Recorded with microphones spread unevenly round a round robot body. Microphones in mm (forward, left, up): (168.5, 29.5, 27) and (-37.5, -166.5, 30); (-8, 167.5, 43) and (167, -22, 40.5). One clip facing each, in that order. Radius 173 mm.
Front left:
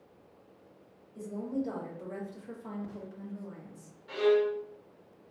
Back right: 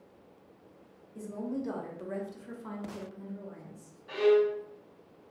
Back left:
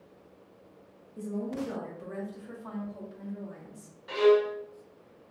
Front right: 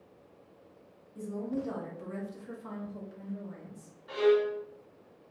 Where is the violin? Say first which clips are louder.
Back right 2 dB, back left 3 dB; 120° left, 0.7 m.